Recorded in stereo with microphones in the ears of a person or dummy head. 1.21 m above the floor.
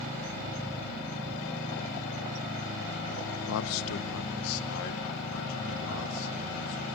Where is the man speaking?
75° left (ahead or behind), 0.5 m.